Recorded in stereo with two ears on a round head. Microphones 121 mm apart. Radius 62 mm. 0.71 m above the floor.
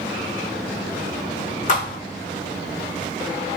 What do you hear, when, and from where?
1.7 s a thud: 60° left (ahead or behind), 1.6 m